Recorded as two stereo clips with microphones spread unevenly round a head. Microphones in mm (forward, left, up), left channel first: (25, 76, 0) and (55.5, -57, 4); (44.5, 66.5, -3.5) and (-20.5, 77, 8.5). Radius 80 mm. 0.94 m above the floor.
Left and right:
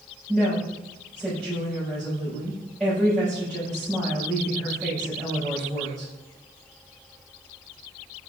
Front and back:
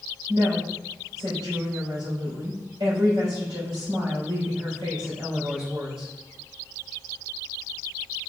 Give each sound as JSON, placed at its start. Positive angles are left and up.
{"t": 0.3, "sound": "a woman speaking", "azimuth_deg": -165, "distance_m": 4.0}